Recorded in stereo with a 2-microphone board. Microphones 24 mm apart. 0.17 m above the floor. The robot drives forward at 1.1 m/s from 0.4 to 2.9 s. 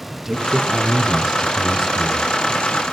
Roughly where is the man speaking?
Centre.